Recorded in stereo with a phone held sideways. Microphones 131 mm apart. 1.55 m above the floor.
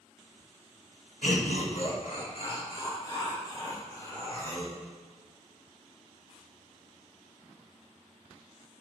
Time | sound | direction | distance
1.2 | laughter | 75° left (ahead or behind) | 1.6 m